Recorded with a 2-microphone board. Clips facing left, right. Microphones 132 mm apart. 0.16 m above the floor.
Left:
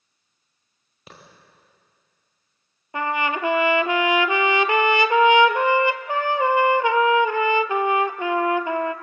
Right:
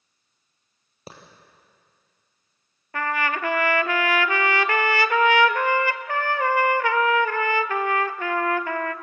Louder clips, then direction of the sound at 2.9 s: Left 2 dB; 20° left (ahead or behind).